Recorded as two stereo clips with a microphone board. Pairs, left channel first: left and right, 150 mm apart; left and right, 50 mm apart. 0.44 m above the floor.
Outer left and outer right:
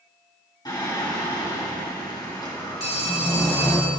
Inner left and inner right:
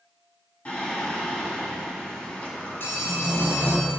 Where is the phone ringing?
45° left (ahead or behind), 1.6 m.